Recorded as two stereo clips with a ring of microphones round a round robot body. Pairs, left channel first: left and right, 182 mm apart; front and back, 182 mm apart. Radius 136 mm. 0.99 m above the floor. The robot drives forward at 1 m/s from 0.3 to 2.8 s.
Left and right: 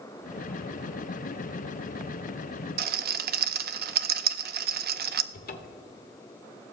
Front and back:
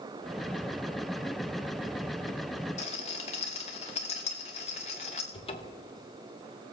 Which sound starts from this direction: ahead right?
A rattle, at 2.8 s.